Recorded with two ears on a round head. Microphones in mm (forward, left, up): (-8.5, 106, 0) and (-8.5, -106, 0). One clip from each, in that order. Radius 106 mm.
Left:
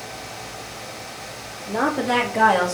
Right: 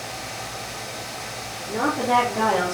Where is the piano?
No piano in this recording.